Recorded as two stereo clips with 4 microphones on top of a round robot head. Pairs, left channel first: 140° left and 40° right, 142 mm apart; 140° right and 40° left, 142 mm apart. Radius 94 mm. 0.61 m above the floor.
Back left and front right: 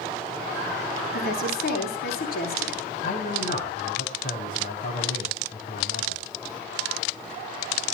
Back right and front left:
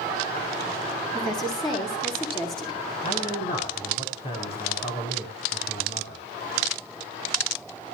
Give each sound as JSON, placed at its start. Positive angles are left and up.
{"t": 1.1, "sound": "a woman speaking", "azimuth_deg": 155, "distance_m": 9.5}
{"t": 3.0, "sound": "a man speaking", "azimuth_deg": 165, "distance_m": 5.5}